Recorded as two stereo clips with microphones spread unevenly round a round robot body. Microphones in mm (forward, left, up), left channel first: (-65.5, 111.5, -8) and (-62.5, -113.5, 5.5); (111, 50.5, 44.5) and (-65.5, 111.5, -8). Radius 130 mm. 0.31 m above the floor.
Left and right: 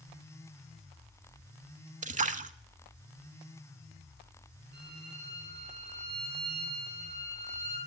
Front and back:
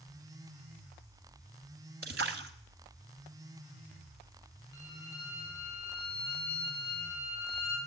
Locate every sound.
2.0 s a splash: 150° right, 0.8 m
4.7 s a violin: 80° right, 6.5 m